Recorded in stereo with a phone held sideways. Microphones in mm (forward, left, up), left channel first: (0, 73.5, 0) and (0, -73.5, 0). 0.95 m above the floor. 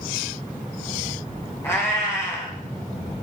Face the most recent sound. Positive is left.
turn(degrees=20)  # may be behind; listen again after turning